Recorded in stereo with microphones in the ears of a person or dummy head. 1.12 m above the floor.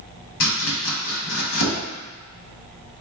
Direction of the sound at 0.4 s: 80° left.